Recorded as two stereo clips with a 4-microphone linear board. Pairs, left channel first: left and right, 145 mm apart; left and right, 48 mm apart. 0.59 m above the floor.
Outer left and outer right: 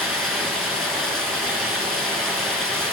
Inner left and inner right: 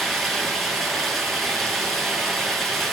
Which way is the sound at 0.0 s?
5° left (ahead or behind).